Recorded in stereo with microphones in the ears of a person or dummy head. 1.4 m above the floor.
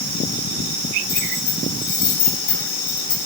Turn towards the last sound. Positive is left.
turn(degrees=40)  # may be behind; listen again after turning